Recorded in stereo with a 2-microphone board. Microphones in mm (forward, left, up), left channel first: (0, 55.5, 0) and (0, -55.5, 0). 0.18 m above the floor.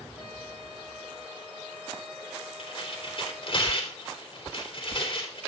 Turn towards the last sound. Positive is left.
turn(degrees=50)  # may be behind; listen again after turning